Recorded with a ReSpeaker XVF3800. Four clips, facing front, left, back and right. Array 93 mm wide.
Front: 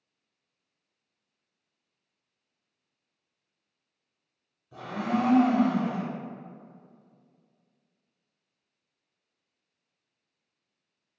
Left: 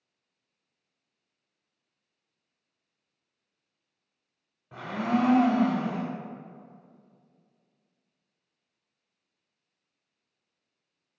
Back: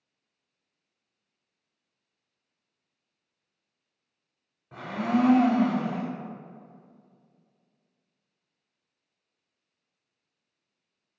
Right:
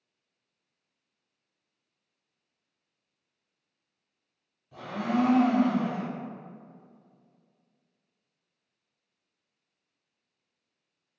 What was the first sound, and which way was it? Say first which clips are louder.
A blender: left 1 dB, back 3 dB; 130° left.